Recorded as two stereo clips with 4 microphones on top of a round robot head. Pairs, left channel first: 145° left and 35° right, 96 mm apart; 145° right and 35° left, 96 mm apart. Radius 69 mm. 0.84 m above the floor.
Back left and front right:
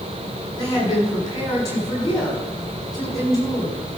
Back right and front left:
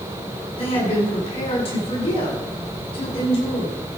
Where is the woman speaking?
165° right, 6.5 m.